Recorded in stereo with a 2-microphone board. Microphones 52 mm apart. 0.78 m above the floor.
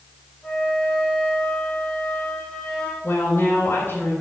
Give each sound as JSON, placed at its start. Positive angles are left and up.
{"t": 0.4, "sound": "a flute", "side_deg": 10, "distance_m": 2.5}
{"t": 3.0, "sound": "a woman speaking", "side_deg": 40, "distance_m": 3.5}